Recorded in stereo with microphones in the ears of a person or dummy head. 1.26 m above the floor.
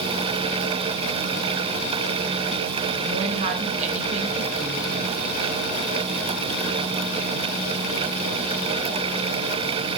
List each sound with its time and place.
3.0 s a woman speaking: 40° right (ahead or behind), 1.0 m